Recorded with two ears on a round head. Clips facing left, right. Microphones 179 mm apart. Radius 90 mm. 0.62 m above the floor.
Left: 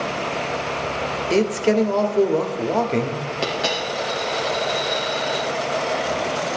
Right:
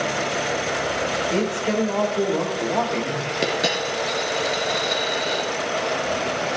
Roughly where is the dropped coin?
Right.